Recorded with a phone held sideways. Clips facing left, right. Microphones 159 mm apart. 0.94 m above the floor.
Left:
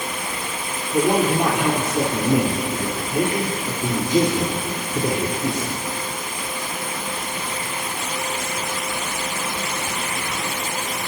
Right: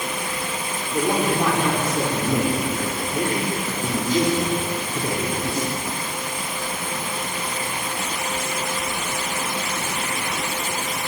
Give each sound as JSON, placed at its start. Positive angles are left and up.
{"t": 0.9, "sound": "a man speaking", "side_deg": 20, "distance_m": 3.0}